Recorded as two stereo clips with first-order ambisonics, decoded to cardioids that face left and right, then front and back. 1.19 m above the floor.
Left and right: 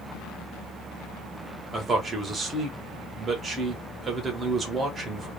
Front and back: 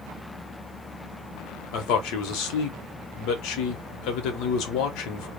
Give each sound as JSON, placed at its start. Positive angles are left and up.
{"t": 1.7, "sound": "a man speaking", "azimuth_deg": -20, "distance_m": 0.9}